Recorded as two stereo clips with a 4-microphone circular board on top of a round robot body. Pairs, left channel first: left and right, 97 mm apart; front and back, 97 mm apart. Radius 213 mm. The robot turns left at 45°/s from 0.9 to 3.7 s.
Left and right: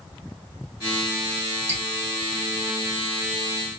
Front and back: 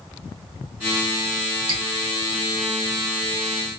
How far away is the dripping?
About 1.4 m.